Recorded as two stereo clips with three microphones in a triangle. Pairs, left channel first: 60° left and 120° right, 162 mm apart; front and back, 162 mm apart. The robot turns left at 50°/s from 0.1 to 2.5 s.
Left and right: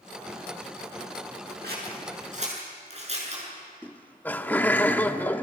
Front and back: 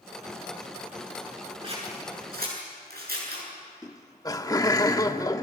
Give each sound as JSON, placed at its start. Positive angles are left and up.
{"t": 1.6, "sound": "scissors", "azimuth_deg": -125, "distance_m": 7.5}
{"t": 3.8, "sound": "laughter", "azimuth_deg": 0, "distance_m": 1.1}